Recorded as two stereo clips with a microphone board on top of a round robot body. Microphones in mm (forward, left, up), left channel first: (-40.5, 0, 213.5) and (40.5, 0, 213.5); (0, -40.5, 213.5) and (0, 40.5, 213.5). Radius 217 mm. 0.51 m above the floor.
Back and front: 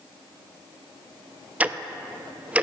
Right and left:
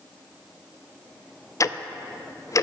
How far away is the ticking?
About 0.7 m.